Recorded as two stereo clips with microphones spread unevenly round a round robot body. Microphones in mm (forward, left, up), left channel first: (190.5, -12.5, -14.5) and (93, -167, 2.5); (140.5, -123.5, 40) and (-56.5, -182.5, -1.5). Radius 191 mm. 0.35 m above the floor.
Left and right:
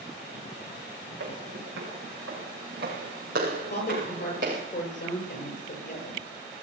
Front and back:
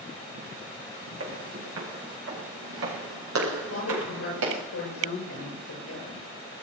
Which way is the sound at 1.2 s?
160° right.